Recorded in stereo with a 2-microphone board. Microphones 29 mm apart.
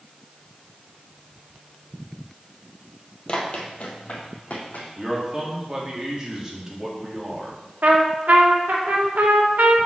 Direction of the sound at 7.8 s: 70° right (ahead or behind).